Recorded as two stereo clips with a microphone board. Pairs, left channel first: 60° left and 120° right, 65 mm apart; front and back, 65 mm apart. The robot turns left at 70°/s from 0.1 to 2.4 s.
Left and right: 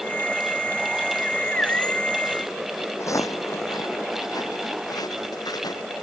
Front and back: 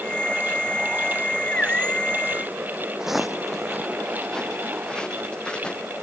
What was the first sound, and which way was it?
Footsteps, 100° left.